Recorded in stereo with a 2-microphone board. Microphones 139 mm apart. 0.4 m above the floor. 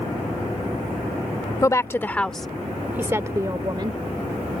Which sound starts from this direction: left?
A woman speaking, at 1.6 s.